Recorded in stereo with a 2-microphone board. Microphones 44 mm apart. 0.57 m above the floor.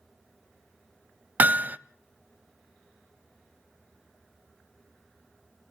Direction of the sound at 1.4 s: 40° right (ahead or behind).